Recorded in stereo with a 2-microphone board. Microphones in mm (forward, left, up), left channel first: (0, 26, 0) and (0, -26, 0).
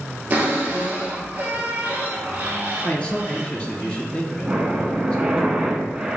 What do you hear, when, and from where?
0.3 s a cupboard door: 30° right (ahead or behind), 1.4 m
2.8 s a man speaking: 20° left (ahead or behind), 1.8 m
4.4 s breathing: 20° right (ahead or behind), 0.6 m